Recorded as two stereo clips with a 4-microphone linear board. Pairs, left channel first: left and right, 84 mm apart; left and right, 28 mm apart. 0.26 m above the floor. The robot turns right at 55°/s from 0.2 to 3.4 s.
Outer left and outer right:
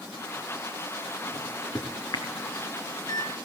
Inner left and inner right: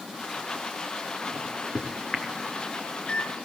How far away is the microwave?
About 3.5 m.